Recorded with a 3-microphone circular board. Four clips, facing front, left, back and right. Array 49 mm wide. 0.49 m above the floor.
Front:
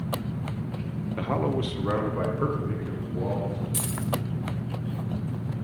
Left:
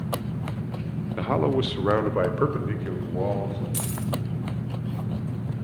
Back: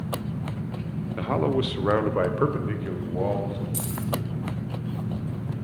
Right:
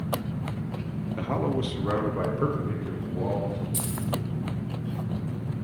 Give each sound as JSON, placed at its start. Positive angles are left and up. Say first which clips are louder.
{"t": 1.2, "sound": "a man speaking", "louder": "left 5 dB, back 3 dB", "azimuth_deg": 95, "distance_m": 0.7}
{"t": 3.7, "sound": "keys jangling", "louder": "left 1 dB, even", "azimuth_deg": 50, "distance_m": 1.5}